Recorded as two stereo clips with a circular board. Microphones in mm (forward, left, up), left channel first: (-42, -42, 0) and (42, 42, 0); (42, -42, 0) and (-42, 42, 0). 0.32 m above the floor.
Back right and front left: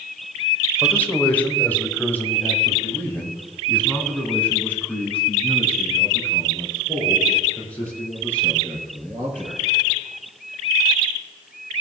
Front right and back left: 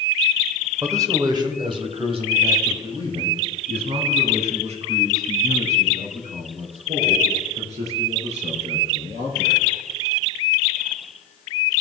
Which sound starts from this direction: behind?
A man speaking, at 0.8 s.